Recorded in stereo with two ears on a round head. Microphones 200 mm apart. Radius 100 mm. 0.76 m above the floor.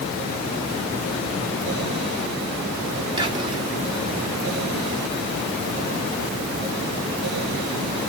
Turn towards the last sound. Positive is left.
turn(degrees=-20)  # may be behind; listen again after turning